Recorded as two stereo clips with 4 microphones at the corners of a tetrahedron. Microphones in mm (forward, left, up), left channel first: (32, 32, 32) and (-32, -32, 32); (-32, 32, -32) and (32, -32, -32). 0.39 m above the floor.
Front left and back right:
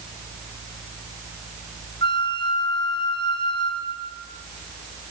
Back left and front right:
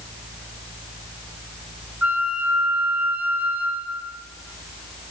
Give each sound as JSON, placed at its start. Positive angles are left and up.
{"t": 2.0, "sound": "a flute", "azimuth_deg": 25, "distance_m": 1.1}